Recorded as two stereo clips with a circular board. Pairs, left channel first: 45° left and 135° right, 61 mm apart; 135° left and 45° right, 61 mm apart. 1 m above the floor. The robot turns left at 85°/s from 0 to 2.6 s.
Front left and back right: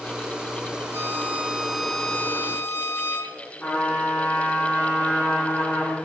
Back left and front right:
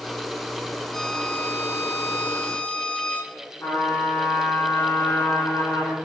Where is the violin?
145° right, 0.7 m; by 3.3 s 75° left, 0.7 m.